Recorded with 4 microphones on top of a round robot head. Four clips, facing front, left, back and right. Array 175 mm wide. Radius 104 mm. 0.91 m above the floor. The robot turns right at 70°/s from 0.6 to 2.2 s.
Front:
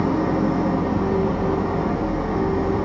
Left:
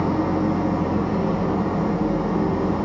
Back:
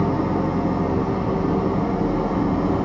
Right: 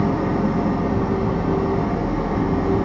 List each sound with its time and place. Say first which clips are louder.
0.0 s an engine running: right 1 dB, front 1 dB; 45° left, 0.9 m; by 2.9 s 155° left, 0.9 m